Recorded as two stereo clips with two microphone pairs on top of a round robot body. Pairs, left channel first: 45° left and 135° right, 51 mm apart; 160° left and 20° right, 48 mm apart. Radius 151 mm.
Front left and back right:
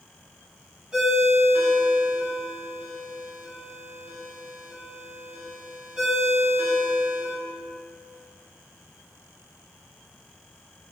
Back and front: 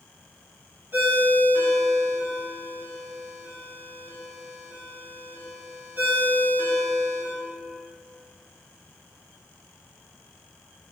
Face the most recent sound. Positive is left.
turn(degrees=-60)